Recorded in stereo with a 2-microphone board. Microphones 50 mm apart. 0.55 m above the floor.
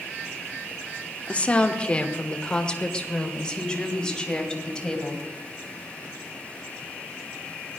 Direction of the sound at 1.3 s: 25° left (ahead or behind).